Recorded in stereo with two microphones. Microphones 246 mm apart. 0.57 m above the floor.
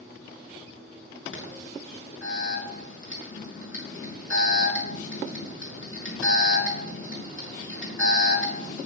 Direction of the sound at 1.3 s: 55° left (ahead or behind).